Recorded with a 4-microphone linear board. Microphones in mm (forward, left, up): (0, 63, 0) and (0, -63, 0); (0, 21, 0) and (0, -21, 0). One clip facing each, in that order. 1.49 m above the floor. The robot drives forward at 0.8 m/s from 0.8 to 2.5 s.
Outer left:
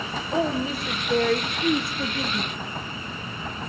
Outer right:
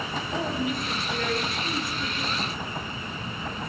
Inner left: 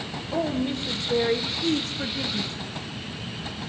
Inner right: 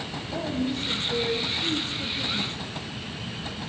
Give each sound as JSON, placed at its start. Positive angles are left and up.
{"t": 0.3, "sound": "a woman speaking", "side_deg": 30, "distance_m": 0.9}